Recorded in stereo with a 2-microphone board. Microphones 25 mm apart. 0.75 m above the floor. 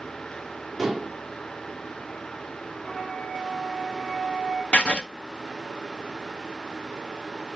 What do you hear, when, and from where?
0.8 s dishes clattering: centre (ahead or behind), 1.0 m
2.8 s a flute: 5° left (ahead or behind), 2.5 m
4.7 s writing: 55° left (ahead or behind), 0.7 m